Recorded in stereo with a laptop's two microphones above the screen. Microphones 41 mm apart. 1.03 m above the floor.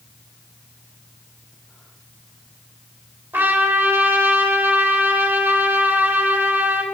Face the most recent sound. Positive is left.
turn(degrees=-55)  # may be behind; listen again after turning